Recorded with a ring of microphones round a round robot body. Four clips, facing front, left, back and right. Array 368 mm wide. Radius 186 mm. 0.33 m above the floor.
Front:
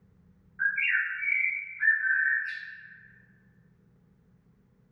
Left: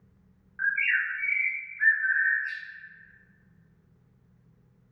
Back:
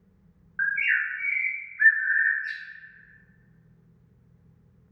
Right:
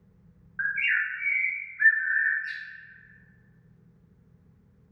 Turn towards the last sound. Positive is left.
turn(degrees=-160)